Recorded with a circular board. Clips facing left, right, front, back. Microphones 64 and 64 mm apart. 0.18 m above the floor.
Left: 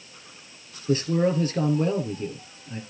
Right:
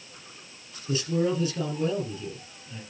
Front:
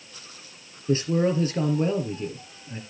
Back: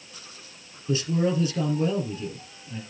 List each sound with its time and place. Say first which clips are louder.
0.9 s a man speaking: left 4 dB, front 2 dB; 50° left, 4.5 m